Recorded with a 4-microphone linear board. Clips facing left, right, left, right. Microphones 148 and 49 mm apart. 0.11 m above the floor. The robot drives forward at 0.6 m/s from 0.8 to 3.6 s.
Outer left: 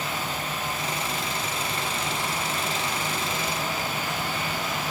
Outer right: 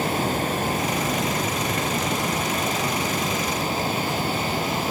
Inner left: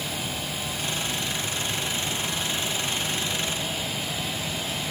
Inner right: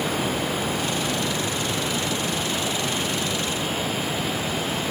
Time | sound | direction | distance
0.0 | running water | 45° right (ahead or behind) | ?